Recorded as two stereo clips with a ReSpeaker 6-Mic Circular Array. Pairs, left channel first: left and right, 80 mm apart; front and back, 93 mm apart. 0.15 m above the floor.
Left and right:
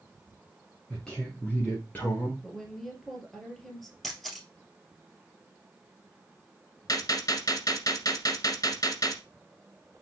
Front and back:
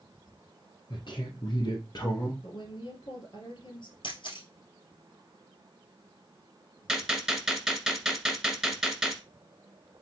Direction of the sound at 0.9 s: 5° left.